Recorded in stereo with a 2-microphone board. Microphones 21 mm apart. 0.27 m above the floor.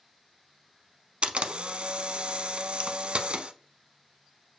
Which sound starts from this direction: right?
A camera shutter, at 1.2 s.